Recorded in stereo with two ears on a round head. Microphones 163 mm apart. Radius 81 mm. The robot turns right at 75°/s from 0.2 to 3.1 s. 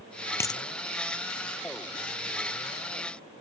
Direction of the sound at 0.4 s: 15° left (ahead or behind).